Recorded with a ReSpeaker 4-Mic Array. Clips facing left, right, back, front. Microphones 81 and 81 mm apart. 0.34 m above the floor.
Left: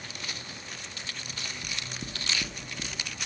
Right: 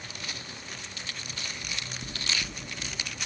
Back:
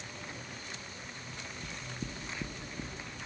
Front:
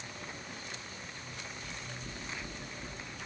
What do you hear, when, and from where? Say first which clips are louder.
1.6 s knocking: even, back 2 dB; 145° left, 4.5 m